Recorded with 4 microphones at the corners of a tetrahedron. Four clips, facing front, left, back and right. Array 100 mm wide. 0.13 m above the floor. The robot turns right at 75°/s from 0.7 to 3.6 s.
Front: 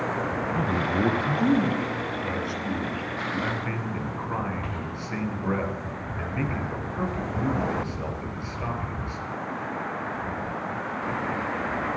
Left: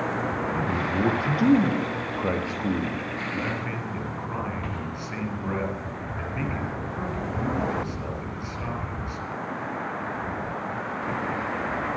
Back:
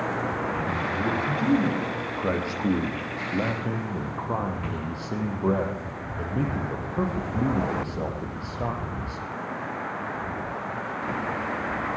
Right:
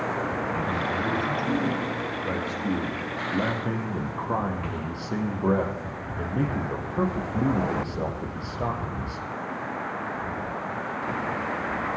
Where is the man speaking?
10° left, 4.5 m; by 9.2 s 130° right, 4.5 m.